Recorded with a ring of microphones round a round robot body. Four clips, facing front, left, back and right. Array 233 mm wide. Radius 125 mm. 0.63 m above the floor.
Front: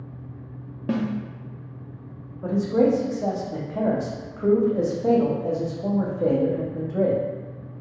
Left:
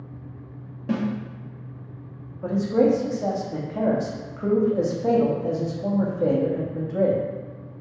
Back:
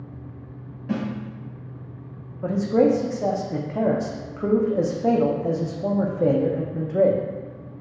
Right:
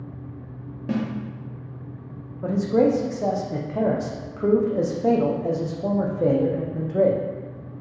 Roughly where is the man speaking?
Behind right.